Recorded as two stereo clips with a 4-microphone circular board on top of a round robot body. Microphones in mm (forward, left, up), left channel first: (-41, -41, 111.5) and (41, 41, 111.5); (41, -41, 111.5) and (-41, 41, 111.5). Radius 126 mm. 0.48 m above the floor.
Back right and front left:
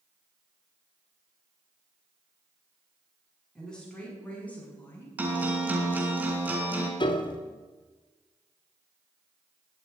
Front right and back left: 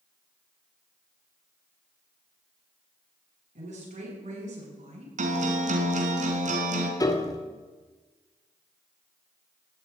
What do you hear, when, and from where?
3.5 s a woman speaking: 140° left, 7 m; by 5.1 s 150° left, 6 m
5.2 s a guitar: 120° left, 3 m
7.0 s a piano: 100° right, 2 m